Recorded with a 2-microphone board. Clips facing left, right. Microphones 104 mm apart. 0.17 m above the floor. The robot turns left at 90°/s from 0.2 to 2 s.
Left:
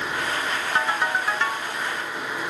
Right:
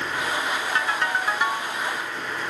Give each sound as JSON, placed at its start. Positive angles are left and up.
{"t": 0.8, "sound": "a ringtone", "azimuth_deg": 45, "distance_m": 1.4}